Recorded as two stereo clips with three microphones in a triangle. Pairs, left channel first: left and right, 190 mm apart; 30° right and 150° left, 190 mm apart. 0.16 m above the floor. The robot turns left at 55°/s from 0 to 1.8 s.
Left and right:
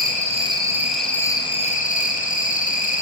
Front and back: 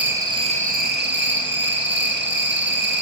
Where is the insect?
125° right, 1.5 m; by 3.0 s 135° left, 1.5 m.